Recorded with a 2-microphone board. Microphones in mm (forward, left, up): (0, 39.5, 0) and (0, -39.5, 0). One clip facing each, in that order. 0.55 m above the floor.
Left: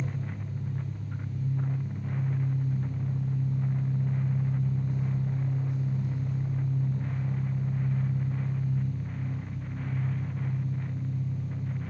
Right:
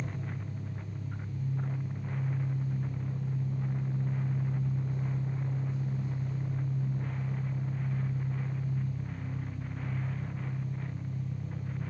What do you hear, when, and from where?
0.0 s an engine running: 80° left, 3.5 m